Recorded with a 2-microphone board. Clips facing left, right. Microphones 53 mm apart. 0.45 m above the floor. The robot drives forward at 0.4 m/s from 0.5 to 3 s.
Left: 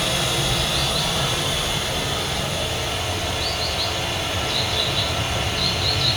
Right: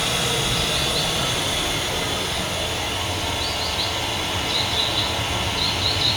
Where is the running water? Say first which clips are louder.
Even; 5° right (ahead or behind), 1.3 m; by 6.2 s centre (ahead or behind), 2.5 m.